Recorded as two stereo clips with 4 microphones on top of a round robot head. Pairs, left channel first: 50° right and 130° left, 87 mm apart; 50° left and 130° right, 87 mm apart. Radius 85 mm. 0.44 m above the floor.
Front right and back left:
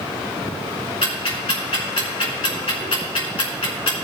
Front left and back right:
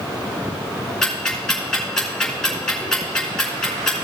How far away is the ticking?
About 3 m.